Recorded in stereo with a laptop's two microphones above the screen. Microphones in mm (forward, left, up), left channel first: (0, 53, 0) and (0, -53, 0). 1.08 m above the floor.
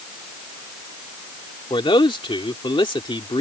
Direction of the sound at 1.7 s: 55° left (ahead or behind).